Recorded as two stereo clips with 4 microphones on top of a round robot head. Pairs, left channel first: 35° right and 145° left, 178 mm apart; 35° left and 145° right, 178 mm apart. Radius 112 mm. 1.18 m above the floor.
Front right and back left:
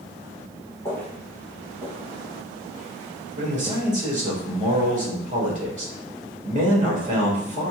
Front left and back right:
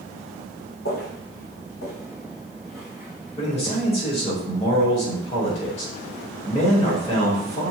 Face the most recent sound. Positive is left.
turn(degrees=95)